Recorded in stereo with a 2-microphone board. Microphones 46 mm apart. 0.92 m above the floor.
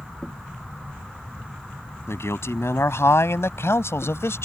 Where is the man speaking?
85° left; by 4.5 s 80° left.